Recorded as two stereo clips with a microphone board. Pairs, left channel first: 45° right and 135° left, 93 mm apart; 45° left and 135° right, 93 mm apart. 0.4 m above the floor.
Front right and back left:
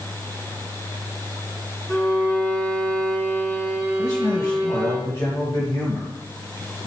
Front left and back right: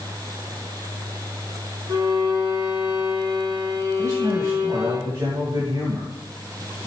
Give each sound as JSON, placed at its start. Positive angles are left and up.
{"t": 1.9, "sound": "a violin", "azimuth_deg": -105, "distance_m": 4.0}
{"t": 4.0, "sound": "a man speaking", "azimuth_deg": -95, "distance_m": 2.5}